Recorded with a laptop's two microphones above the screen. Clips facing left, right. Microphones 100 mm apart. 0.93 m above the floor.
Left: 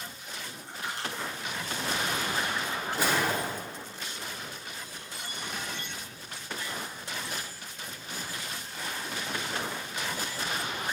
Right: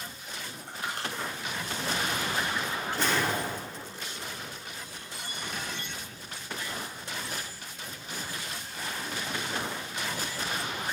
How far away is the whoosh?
About 1.5 m.